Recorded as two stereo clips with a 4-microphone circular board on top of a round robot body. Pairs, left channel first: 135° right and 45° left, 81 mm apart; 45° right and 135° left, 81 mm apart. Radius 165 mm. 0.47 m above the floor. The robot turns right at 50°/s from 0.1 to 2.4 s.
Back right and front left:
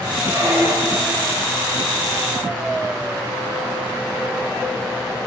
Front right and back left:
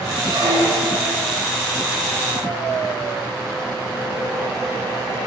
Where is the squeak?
100° left, 8 m; by 1.2 s 150° left, 8 m.